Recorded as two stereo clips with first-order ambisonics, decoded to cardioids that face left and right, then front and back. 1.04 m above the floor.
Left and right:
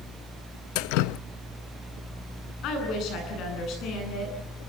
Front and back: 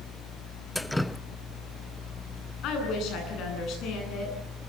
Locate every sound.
0.8 s dripping: 85° left, 0.6 m
2.6 s a woman speaking: 45° left, 9.5 m